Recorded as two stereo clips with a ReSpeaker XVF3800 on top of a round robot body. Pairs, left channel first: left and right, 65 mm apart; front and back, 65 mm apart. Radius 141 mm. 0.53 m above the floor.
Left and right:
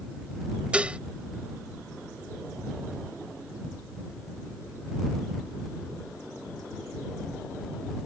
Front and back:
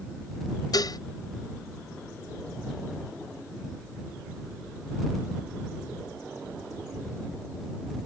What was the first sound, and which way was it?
Dishes clattering, 20° right.